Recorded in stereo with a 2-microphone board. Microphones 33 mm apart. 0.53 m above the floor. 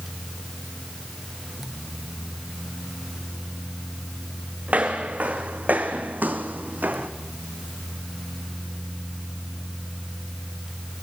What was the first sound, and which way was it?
Footsteps, 45° right (ahead or behind).